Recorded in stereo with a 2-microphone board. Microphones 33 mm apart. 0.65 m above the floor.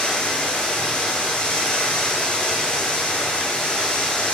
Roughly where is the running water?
Left.